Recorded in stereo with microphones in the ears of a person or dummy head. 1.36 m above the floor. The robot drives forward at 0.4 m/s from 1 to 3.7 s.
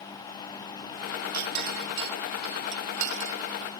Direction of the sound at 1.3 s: 50° right (ahead or behind).